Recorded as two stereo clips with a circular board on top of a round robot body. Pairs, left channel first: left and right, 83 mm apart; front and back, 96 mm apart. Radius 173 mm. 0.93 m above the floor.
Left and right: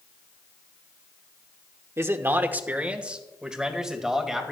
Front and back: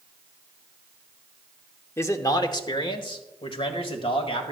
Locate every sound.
2.0 s a man speaking: 50° right, 1.0 m; by 4.5 s 5° right, 2 m